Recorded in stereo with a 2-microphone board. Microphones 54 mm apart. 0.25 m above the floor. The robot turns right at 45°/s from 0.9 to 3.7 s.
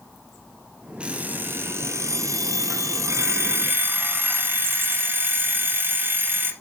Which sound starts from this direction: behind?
An alarm clock, at 1.0 s.